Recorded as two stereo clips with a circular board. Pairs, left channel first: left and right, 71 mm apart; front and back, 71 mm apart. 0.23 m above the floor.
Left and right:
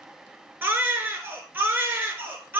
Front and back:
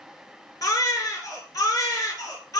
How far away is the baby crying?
About 2 m.